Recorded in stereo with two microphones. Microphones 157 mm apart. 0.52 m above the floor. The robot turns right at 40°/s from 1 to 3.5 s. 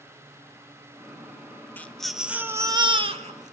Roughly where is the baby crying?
Behind.